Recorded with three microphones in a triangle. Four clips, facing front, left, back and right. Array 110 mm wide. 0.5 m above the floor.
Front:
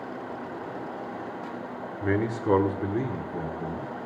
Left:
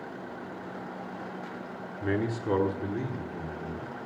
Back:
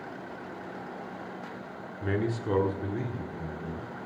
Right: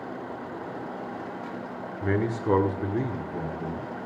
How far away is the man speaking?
About 1.3 m.